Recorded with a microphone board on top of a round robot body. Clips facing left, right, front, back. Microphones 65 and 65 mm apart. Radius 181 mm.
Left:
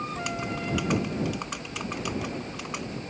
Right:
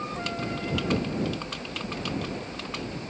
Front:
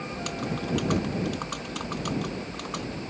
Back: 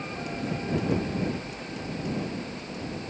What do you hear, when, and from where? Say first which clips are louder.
0.1 s typing on a keyboard: even, even; 15° left